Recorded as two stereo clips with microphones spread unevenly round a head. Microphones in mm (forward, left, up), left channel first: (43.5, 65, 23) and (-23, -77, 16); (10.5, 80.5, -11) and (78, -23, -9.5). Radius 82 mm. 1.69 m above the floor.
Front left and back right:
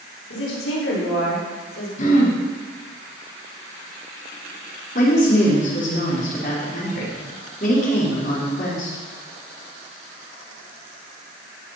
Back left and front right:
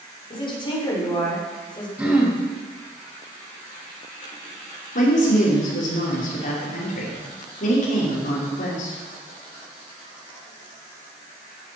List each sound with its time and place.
0.3 s a woman speaking: 75° left, 6 m; by 1.9 s 70° left, 7 m
2.0 s throat clearing: 25° left, 4.5 m
5.0 s a woman speaking: 110° left, 5.5 m